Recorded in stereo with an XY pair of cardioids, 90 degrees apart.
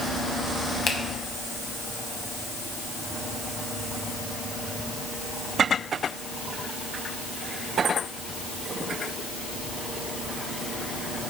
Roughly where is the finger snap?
Ahead left.